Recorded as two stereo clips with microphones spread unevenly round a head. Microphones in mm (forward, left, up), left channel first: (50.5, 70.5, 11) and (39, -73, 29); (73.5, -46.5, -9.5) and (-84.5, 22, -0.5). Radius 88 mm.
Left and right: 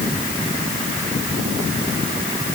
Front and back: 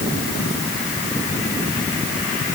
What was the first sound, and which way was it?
Only background noise.